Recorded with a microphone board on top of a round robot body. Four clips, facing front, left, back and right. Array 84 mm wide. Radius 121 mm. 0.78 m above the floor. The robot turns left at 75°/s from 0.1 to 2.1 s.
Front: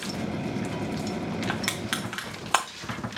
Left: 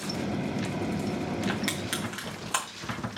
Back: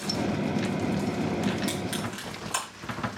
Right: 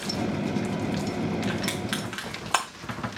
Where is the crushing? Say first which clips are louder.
Right 2 dB, back 1 dB; 15° left, 0.5 m; by 2.7 s 30° right, 0.5 m.